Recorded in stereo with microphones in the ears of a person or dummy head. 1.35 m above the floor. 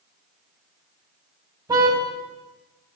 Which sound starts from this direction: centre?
A car horn, at 1.7 s.